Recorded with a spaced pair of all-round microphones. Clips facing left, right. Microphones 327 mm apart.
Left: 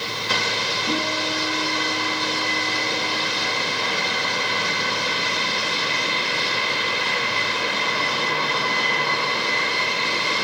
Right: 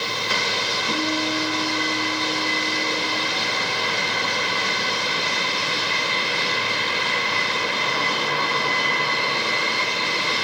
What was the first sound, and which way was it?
A guitar, 65° left (ahead or behind).